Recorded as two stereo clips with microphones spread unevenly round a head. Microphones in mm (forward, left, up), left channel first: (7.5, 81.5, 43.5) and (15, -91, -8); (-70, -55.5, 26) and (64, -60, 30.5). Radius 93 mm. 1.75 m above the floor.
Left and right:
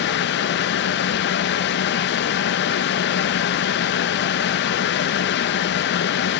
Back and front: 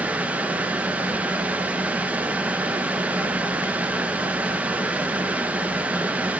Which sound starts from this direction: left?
A fan, at 0.0 s.